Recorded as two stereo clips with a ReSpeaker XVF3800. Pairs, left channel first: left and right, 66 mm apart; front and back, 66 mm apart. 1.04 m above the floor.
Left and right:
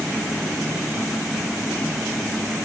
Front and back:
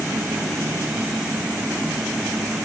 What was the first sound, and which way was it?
Only background noise.